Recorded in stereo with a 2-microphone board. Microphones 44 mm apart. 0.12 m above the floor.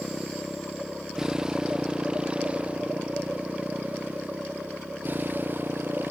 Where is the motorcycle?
Centre (ahead or behind); by 6.1 s 50° right (ahead or behind).